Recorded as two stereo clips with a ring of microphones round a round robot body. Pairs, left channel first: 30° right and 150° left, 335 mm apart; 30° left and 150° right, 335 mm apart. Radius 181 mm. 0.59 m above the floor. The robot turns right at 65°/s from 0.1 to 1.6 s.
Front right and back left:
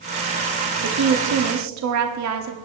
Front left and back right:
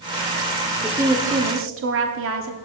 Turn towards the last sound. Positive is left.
turn(degrees=170)